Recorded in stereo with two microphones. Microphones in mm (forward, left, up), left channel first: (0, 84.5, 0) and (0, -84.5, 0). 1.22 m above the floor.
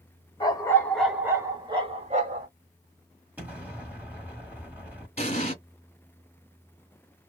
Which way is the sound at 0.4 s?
25° left (ahead or behind).